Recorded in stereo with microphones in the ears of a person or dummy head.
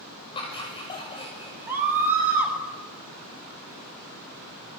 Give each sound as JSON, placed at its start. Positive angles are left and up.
{"t": 0.3, "sound": "laughter", "side_deg": 20, "distance_m": 5.5}
{"t": 1.7, "sound": "a scream", "side_deg": -15, "distance_m": 6.5}